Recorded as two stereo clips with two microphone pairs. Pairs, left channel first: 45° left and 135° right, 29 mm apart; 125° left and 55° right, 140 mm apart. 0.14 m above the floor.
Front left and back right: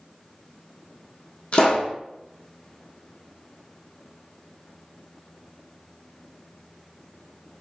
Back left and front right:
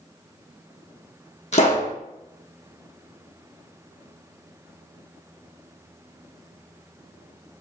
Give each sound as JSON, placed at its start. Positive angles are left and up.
{"t": 1.5, "sound": "a pop", "azimuth_deg": 95, "distance_m": 1.3}